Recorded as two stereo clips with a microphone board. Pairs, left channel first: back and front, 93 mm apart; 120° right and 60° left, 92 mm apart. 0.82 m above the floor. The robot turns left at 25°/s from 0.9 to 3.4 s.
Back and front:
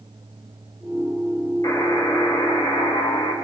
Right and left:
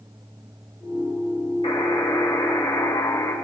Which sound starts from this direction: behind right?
A buzzer, at 1.6 s.